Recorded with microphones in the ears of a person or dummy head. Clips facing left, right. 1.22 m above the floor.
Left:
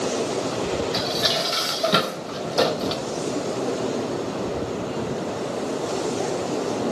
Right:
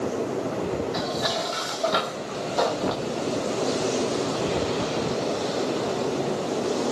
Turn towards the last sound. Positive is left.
turn(degrees=35)  # may be behind; listen again after turning